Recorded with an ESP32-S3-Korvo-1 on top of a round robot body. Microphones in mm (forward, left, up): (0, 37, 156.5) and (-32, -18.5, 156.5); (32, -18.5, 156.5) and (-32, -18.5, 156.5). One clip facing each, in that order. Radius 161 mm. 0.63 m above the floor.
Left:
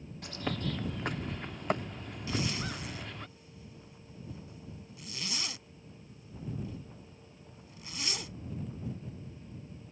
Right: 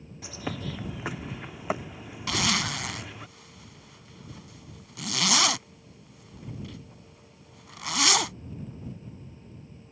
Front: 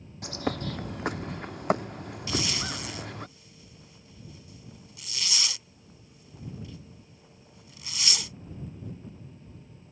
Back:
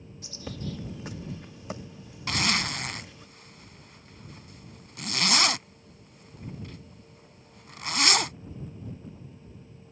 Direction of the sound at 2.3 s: 140° right.